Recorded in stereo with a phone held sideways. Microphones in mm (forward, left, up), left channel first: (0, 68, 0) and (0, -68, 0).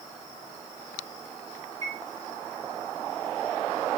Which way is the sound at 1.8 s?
65° right (ahead or behind).